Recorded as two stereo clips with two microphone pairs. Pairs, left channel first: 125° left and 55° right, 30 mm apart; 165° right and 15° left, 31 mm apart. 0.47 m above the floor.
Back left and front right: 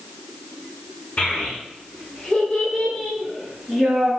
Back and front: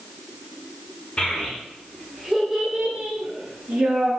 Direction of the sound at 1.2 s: 155° left.